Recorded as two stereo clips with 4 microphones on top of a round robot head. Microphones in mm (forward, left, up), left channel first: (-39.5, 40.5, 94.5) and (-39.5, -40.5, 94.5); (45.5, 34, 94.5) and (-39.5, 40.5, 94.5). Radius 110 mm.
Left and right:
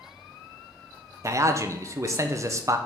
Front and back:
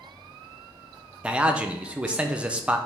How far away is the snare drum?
I don't hear a snare drum.